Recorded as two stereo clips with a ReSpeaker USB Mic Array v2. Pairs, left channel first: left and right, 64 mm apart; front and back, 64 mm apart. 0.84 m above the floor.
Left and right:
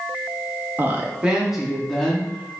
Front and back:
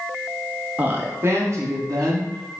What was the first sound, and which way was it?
A woman speaking, 125° right.